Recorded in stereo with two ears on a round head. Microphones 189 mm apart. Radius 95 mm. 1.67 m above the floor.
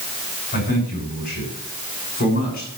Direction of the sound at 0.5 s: 45° left (ahead or behind).